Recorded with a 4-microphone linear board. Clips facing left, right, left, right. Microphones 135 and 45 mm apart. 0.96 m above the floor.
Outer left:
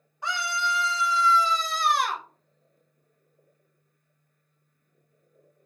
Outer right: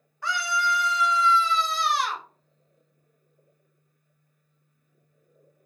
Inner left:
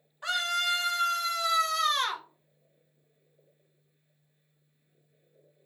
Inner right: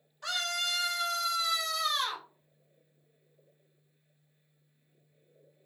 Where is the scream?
20° left (ahead or behind), 1.8 m; by 2.2 s 55° left (ahead or behind), 1.3 m.